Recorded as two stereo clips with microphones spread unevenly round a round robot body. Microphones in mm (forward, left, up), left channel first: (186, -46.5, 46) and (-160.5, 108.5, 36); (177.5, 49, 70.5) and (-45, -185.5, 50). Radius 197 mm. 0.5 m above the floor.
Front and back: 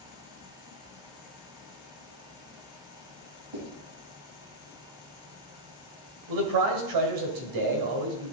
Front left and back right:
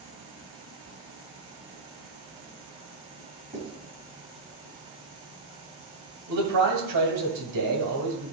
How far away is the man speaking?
About 2.0 m.